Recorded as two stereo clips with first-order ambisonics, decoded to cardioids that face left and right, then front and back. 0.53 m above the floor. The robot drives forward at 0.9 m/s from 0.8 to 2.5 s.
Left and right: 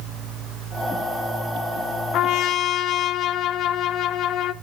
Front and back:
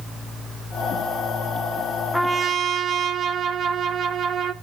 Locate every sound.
2.1 s a trumpet: 90° left, 0.6 m; by 4.5 s 125° left, 0.7 m